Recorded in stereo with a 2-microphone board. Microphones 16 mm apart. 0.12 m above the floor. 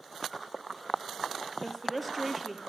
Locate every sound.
1.6 s a woman speaking: 10° right (ahead or behind), 2.5 m